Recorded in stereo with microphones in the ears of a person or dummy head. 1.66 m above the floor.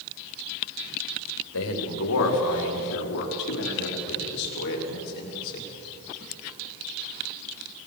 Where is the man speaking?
75° left (ahead or behind), 4 m; by 5.7 s 50° left (ahead or behind), 5.5 m.